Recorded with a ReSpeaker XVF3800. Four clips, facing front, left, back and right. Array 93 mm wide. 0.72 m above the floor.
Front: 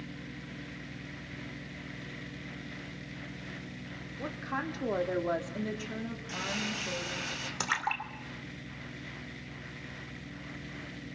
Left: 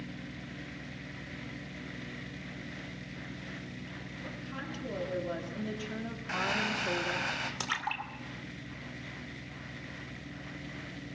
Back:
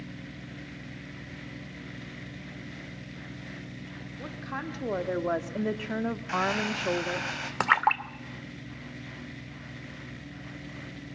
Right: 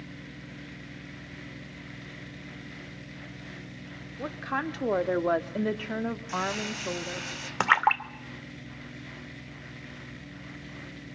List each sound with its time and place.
4.2 s a woman speaking: 80° right, 1.8 m; by 7.3 s straight behind, 1.6 m
6.3 s crumpling: 135° left, 2 m
7.6 s a splash: 130° right, 0.9 m